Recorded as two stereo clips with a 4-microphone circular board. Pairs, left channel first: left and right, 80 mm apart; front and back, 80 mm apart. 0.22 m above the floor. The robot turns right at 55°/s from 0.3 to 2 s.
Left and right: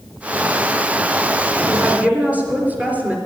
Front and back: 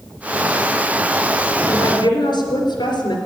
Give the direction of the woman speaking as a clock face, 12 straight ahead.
1 o'clock.